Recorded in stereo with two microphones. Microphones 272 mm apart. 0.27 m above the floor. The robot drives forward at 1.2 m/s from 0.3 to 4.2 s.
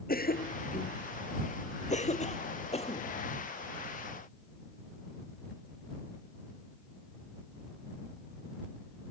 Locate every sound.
0.1 s a cough: 35° left (ahead or behind); by 3.1 s 20° left (ahead or behind)